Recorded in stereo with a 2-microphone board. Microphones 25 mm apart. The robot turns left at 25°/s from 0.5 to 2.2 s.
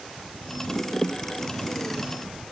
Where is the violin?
I don't hear a violin.